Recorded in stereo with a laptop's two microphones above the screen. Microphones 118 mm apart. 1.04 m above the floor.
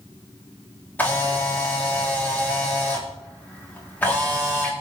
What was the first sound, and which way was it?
A camera shutter, 15° left (ahead or behind).